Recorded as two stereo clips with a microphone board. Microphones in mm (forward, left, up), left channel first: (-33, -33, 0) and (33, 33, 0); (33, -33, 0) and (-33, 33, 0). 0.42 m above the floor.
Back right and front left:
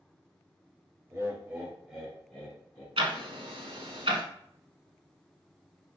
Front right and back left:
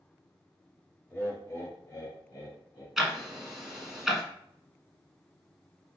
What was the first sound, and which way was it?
Laughter, 10° left.